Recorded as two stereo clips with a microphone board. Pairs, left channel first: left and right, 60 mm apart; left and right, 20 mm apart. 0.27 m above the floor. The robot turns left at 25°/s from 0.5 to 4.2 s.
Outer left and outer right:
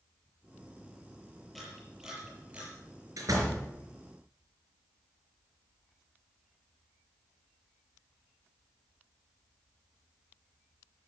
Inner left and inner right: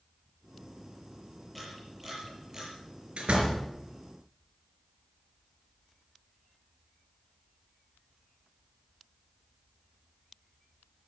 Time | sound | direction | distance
1.6 | a camera shutter | 5° left (ahead or behind) | 7 m
3.2 | a door slam | 70° right (ahead or behind) | 3.5 m